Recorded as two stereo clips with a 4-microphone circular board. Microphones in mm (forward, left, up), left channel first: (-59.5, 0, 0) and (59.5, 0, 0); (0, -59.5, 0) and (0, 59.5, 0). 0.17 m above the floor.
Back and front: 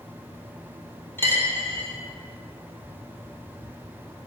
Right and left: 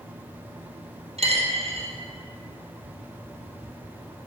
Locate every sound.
1.2 s a dropped coin: 110° left, 1.4 m